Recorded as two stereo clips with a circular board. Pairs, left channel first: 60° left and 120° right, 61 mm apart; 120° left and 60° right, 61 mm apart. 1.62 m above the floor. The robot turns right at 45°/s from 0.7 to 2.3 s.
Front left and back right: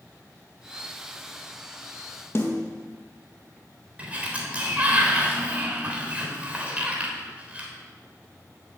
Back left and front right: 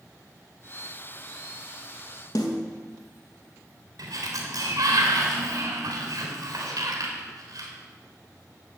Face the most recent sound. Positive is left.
turn(degrees=-50)